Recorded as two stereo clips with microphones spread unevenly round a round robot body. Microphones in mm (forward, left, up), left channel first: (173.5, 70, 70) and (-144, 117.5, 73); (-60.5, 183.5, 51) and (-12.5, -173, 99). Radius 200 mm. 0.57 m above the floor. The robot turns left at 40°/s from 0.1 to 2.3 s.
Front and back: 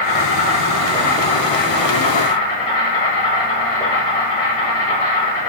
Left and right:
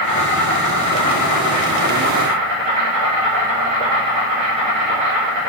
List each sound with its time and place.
0.0 s an insect: 50° left, 1.2 m; by 5.5 s 35° right, 1.2 m